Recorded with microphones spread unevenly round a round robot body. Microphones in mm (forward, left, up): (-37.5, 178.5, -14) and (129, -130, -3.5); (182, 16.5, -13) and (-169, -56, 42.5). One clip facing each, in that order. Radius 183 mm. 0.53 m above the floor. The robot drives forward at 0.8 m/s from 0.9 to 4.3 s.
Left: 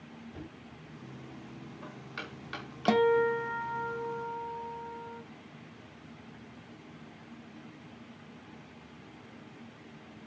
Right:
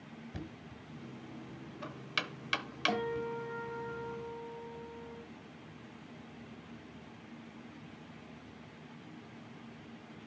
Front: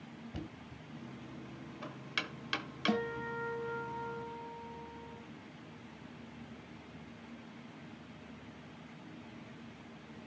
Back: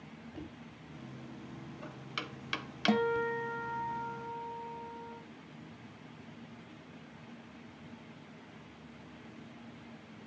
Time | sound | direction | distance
0.3 | knocking | 25° right | 1.8 m
2.9 | a guitar | 120° left | 0.8 m